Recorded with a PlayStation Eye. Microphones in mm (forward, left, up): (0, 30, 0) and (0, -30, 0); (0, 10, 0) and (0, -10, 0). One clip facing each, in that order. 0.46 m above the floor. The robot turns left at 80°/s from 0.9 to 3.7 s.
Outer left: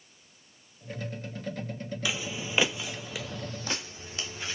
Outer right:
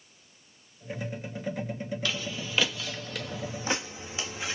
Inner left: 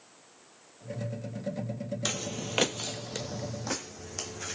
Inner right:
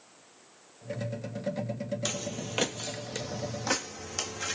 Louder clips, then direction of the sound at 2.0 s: Outer left 4 dB, inner left 1 dB; 10° left (ahead or behind).